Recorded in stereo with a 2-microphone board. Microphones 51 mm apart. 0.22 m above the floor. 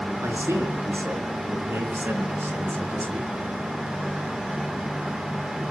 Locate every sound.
0.2 s a man speaking: 60° right (ahead or behind), 4 m; by 3.3 s 45° right (ahead or behind), 2.5 m